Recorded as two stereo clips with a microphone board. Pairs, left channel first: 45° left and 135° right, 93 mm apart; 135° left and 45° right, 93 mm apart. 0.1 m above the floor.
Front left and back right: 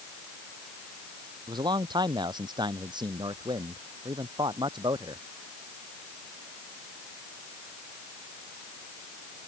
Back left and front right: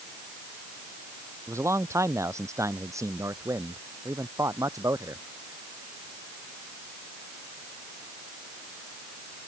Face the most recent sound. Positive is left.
turn(degrees=-100)